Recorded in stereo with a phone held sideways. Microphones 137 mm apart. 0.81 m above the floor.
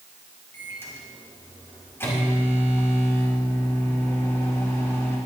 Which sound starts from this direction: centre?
A microwave, at 0.5 s.